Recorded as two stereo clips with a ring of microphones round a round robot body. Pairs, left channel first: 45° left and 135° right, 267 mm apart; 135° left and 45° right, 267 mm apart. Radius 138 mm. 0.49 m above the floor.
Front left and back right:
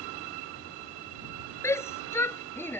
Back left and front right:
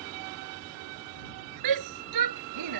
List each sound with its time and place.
1.6 s a shout: 35° right; by 2.8 s 40° right